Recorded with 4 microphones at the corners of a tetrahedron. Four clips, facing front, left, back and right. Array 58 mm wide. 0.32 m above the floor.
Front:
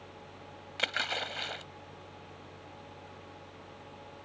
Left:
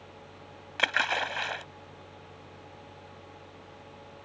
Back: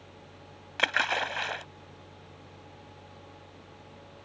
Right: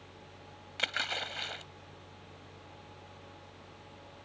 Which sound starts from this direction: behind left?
A splash, at 0.8 s.